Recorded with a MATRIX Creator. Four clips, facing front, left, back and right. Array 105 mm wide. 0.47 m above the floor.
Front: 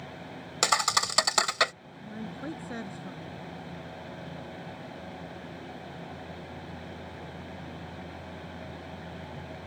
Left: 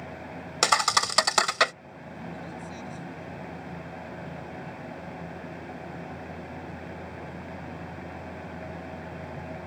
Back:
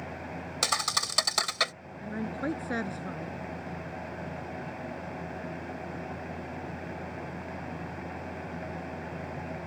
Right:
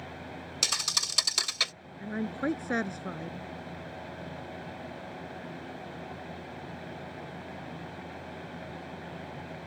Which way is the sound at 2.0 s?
115° right.